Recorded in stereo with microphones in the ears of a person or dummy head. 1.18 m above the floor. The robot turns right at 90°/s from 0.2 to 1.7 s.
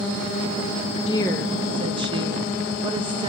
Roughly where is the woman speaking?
Behind left.